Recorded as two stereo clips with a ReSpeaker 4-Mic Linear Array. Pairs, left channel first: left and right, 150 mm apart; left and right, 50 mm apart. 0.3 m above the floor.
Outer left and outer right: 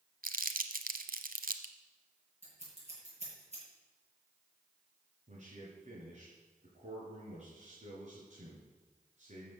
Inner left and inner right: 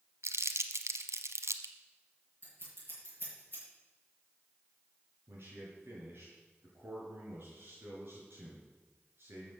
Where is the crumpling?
70° right (ahead or behind), 1.0 m.